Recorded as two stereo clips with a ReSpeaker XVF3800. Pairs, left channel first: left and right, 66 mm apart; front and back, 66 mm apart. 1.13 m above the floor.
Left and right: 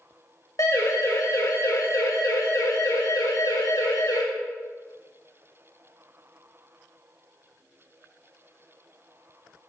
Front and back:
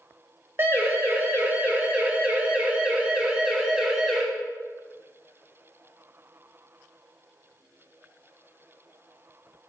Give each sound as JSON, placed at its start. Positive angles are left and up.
{"t": 0.6, "sound": "a siren", "azimuth_deg": 125, "distance_m": 5.5}